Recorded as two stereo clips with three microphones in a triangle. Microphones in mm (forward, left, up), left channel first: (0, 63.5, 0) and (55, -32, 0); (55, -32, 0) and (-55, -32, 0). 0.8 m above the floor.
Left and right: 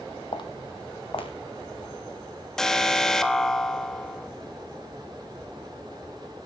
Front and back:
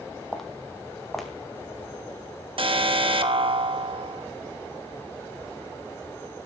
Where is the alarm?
155° right, 1.1 m.